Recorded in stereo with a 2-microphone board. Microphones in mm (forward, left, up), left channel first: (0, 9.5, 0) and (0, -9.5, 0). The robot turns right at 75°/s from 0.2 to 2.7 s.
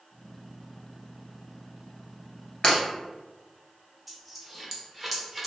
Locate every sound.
2.6 s breaking glass: 50° left (ahead or behind), 1.4 m
4.1 s a dropped coin: 5° right (ahead or behind), 0.6 m